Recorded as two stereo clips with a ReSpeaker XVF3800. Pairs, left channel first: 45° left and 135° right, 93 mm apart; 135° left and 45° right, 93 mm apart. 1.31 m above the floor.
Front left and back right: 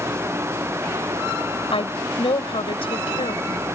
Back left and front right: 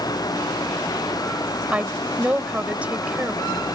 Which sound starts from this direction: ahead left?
A woman speaking, at 1.7 s.